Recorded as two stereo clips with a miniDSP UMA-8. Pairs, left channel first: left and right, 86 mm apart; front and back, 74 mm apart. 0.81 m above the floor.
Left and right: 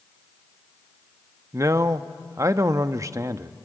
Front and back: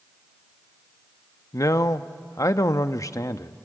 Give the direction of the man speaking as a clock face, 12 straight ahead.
1 o'clock.